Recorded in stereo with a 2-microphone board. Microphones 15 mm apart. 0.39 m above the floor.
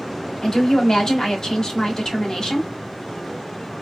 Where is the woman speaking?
40° left (ahead or behind), 1.0 m.